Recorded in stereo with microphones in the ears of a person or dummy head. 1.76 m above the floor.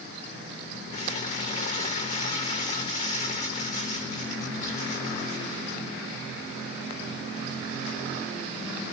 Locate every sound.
0.9 s crumpling: 40° left (ahead or behind), 3.5 m